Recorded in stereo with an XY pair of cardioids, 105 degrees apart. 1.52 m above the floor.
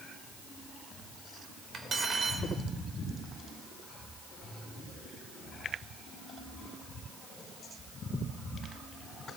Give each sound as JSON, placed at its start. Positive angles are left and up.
{"t": 1.7, "sound": "cutlery clinking", "azimuth_deg": -40, "distance_m": 4.0}